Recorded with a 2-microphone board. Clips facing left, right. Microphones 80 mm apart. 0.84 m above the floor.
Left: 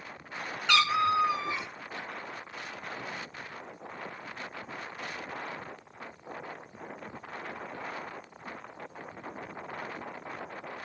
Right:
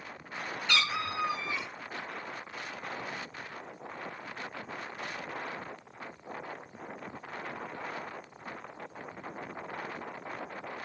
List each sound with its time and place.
0.7 s a cat meowing: 75° left (ahead or behind), 1.0 m; by 1.7 s 20° left (ahead or behind), 1.1 m